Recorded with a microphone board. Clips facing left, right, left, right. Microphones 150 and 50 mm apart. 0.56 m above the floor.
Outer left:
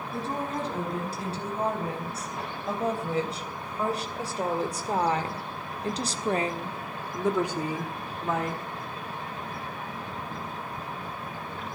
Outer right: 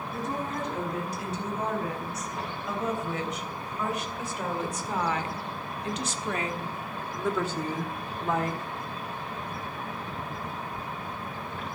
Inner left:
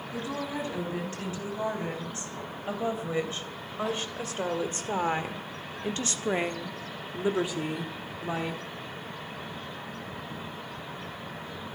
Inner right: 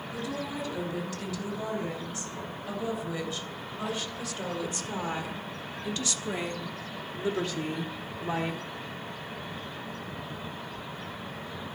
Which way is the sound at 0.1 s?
30° left (ahead or behind).